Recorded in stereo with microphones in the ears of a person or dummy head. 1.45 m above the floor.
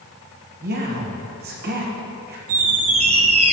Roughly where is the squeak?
Right.